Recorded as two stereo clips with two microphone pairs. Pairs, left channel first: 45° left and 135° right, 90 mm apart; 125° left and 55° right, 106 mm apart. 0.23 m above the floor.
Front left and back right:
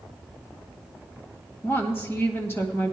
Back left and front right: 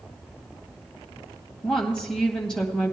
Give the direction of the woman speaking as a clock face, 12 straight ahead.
10 o'clock.